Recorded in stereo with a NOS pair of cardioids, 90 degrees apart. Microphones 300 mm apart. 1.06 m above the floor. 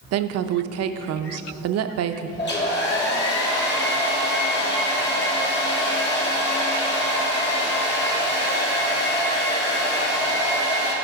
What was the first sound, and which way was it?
A woman speaking, 55° right.